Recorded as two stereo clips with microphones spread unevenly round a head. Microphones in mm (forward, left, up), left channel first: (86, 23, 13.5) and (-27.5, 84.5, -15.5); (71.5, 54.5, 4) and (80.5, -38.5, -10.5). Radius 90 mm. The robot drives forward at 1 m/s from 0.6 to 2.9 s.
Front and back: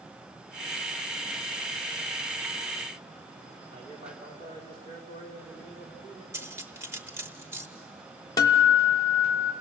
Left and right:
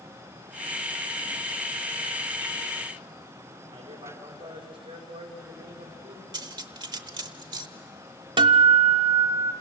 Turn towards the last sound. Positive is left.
turn(degrees=-100)